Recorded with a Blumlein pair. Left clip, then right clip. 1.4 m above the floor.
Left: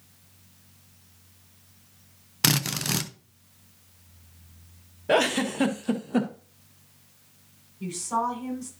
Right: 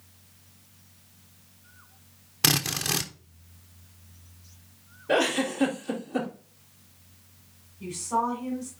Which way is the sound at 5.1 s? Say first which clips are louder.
Left 2 dB; 25° left.